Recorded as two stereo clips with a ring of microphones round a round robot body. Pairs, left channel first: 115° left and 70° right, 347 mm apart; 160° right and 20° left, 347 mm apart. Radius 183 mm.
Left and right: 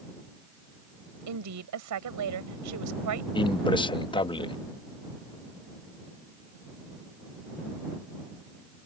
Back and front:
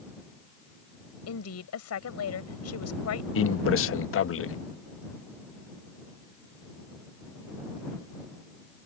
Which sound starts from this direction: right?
A woman speaking, at 1.3 s.